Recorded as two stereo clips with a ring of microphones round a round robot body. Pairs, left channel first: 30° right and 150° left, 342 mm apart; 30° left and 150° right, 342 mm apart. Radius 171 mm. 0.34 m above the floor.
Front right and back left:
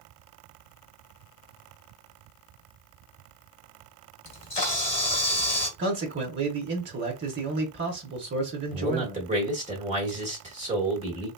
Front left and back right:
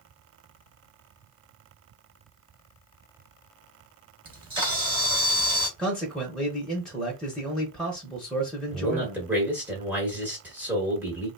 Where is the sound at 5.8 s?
115° left, 0.9 m.